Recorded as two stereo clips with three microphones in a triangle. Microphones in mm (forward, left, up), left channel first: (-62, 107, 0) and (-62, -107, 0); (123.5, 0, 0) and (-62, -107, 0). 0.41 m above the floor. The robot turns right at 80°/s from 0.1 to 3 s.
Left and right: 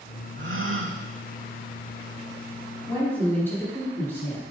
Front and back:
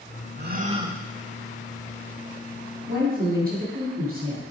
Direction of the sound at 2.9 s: 160° left.